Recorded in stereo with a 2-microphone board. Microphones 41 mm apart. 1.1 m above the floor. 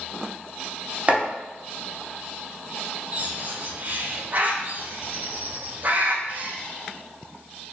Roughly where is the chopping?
Right.